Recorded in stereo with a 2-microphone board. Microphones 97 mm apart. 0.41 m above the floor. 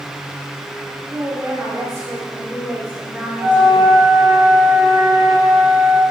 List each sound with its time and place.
1.1 s a woman speaking: 35° right (ahead or behind), 3 m; by 3.9 s 5° right (ahead or behind), 1.4 m
3.4 s a flute: 25° right (ahead or behind), 4.5 m